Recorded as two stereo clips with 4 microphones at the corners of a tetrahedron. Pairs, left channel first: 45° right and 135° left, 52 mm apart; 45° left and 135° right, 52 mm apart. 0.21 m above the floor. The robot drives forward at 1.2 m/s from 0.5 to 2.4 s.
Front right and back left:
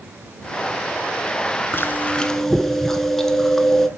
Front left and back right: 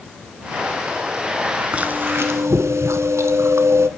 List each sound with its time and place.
1.7 s chewing: 70° right, 0.9 m; by 3.9 s 125° right, 1.0 m